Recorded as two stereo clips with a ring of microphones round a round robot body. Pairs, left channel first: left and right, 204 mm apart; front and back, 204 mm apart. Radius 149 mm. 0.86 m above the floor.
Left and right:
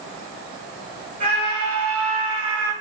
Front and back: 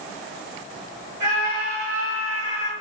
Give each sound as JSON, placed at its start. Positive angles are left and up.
{"t": 1.2, "sound": "a scream", "azimuth_deg": -150, "distance_m": 1.9}